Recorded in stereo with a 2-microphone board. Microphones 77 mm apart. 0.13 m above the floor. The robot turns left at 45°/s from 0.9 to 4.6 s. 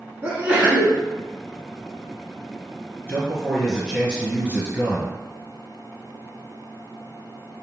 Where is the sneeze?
20° right (ahead or behind), 1.1 m.